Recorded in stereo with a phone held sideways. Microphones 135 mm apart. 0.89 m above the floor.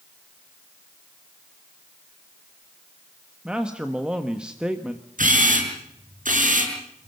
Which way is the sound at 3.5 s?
5° right (ahead or behind).